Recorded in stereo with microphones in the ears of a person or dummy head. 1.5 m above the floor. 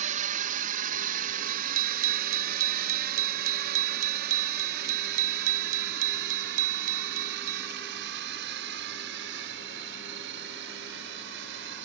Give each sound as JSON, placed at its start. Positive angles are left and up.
{"t": 0.0, "sound": "a drone", "side_deg": -40}
{"t": 1.5, "sound": "a bicycle bell", "side_deg": -45}